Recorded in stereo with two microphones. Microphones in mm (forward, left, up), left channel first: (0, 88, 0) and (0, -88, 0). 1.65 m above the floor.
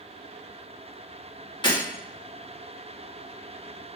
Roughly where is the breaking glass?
Left.